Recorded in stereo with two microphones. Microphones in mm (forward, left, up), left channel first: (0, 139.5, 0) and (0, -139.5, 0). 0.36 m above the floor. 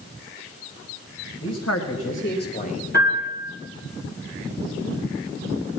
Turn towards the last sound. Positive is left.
turn(degrees=40)  # may be behind; listen again after turning